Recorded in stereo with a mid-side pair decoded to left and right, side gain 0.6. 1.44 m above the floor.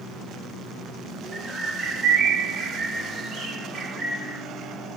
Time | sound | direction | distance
1.3 | a bird | 20° right | 3 m